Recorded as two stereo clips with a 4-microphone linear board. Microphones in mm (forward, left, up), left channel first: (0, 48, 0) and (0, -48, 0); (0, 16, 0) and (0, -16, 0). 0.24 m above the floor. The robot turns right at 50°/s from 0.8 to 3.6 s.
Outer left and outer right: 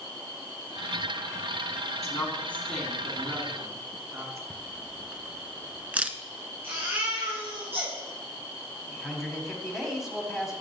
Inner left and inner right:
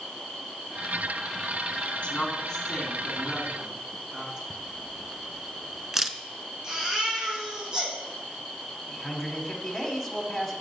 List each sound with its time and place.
2.0 s a woman speaking: 35° left (ahead or behind), 2.5 m; by 4.4 s 30° right (ahead or behind), 2.5 m
4.5 s a camera shutter: 15° right (ahead or behind), 0.5 m
6.6 s a baby crying: 25° right (ahead or behind), 4.5 m
8.9 s a man speaking: centre (ahead or behind), 1.4 m